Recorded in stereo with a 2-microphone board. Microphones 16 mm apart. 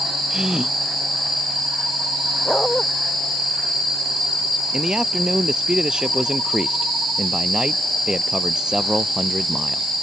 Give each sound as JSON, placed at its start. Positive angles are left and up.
{"t": 0.3, "sound": "a gasp", "side_deg": -50}
{"t": 2.5, "sound": "a dog barking", "side_deg": 35}
{"t": 4.7, "sound": "a man speaking", "side_deg": -65}